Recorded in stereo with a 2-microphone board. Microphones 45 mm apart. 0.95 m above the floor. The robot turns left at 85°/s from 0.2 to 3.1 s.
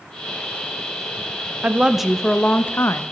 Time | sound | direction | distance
1.6 | a woman speaking | 145° right | 0.5 m